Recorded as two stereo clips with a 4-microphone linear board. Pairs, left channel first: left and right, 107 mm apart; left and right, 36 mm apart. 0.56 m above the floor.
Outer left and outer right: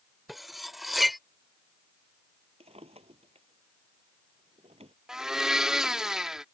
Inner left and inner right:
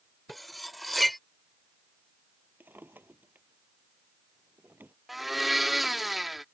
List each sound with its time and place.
0.3 s cutlery clinking: centre (ahead or behind)
2.6 s a drawer: 80° right
5.1 s a blender: 5° right (ahead or behind)